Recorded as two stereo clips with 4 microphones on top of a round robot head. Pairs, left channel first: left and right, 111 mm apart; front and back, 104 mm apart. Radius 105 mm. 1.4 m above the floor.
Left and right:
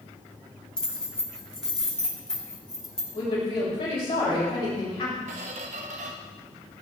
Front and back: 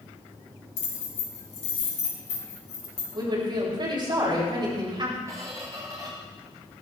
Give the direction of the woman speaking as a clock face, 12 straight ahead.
7 o'clock.